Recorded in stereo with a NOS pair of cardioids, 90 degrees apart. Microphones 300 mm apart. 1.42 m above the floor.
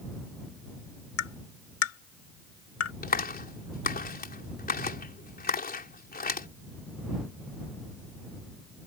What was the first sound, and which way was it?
Tapping, 50° left.